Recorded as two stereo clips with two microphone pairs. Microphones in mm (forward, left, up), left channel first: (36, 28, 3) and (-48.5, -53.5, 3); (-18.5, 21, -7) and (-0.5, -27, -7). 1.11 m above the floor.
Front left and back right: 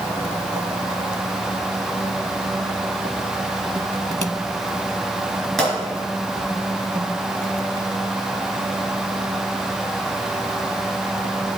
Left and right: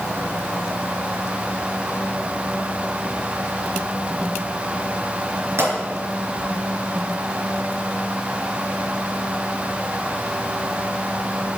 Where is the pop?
45° right, 4 m.